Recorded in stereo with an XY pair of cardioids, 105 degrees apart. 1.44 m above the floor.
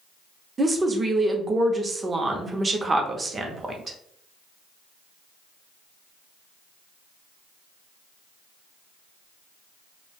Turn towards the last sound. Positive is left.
turn(degrees=-30)